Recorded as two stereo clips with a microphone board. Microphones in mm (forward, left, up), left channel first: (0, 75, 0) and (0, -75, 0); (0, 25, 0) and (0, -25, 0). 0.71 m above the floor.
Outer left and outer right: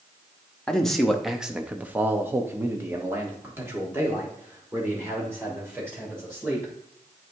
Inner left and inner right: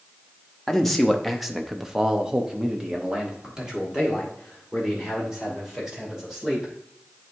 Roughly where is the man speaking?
Centre.